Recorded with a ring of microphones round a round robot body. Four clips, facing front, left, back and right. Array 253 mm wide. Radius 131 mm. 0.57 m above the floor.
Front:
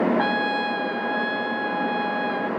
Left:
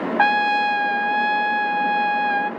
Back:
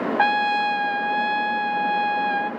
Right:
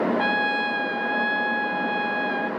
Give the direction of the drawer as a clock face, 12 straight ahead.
I don't hear a drawer.